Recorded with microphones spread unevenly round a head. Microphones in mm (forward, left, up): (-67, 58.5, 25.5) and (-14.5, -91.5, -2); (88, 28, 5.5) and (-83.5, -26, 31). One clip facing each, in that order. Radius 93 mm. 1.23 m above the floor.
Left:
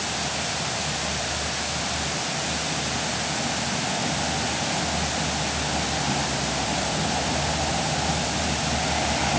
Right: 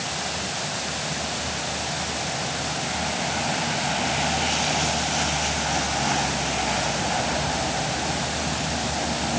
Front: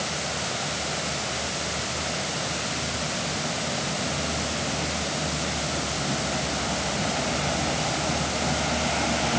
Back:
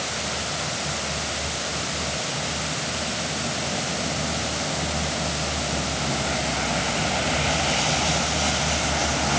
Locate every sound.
Only background noise.